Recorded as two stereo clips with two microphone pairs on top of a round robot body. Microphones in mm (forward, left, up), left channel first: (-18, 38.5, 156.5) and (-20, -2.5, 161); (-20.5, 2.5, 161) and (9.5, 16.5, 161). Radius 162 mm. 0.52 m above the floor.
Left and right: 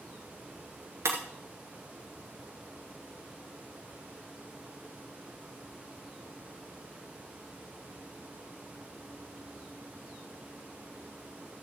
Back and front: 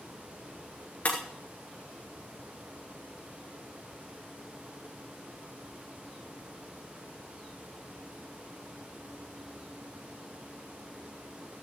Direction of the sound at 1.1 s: 105° right.